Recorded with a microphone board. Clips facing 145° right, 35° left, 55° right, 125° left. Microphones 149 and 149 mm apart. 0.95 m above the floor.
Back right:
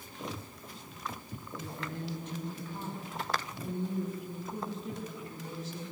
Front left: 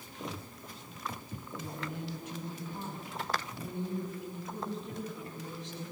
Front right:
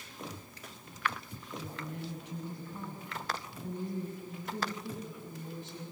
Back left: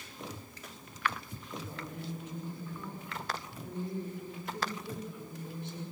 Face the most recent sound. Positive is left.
turn(degrees=-60)